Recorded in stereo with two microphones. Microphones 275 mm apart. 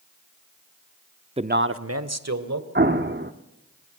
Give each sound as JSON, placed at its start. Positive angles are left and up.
{"t": 1.4, "sound": "a man speaking", "side_deg": -20, "distance_m": 0.7}
{"t": 2.8, "sound": "an explosion", "side_deg": -40, "distance_m": 1.2}